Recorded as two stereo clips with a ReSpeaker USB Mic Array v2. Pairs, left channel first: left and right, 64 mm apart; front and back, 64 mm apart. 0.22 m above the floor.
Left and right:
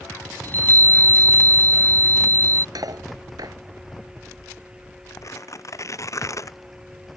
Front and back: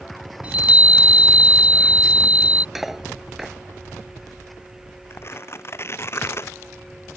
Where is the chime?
125° left.